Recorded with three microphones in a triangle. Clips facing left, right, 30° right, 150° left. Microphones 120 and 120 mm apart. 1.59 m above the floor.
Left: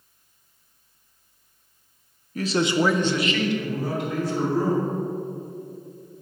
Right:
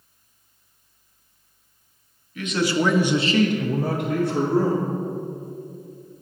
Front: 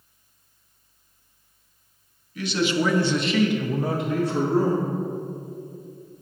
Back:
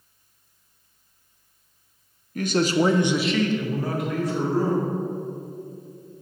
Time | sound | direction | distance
2.4 | a man speaking | 125° left | 0.7 m